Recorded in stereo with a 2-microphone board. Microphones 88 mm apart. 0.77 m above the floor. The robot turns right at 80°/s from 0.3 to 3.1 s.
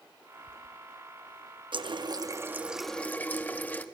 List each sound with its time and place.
1.7 s a running tap: 90° right, 0.8 m; by 3.9 s 20° left, 0.8 m